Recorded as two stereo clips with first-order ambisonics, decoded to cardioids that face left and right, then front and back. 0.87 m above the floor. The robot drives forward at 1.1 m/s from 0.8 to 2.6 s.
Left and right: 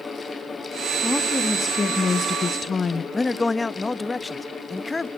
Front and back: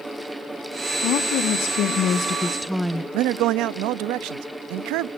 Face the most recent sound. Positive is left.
turn(degrees=170)